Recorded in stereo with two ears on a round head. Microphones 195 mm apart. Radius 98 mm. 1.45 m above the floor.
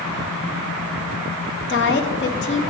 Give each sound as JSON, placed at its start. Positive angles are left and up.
{"t": 1.7, "sound": "a woman speaking", "side_deg": 55, "distance_m": 1.1}